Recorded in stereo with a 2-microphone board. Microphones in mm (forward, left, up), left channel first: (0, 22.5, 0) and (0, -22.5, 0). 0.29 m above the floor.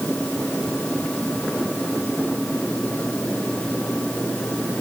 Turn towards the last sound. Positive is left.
No sound to turn to.